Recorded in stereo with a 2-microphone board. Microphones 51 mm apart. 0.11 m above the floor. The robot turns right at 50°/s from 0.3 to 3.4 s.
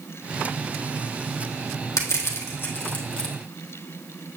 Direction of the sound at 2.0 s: 75° left (ahead or behind).